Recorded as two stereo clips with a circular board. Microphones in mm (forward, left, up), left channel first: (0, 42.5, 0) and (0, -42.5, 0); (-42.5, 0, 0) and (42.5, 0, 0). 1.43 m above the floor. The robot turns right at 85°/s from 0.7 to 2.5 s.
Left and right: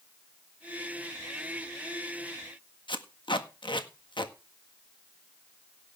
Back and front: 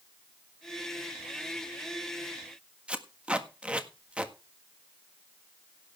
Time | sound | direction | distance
2.9 | tape being pulled | 75° left | 1.5 m